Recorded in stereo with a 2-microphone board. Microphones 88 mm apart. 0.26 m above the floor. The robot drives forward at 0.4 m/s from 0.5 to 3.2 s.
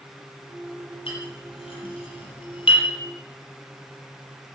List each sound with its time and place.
1.1 s a clink: 75° left (ahead or behind), 5.5 m; by 2.9 s 70° left (ahead or behind), 5.5 m